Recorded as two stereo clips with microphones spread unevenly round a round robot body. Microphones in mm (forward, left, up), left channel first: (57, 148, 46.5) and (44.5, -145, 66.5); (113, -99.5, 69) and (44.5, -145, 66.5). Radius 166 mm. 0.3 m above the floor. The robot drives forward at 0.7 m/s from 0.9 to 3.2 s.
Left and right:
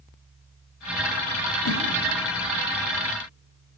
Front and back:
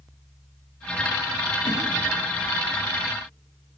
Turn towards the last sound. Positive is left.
turn(degrees=120)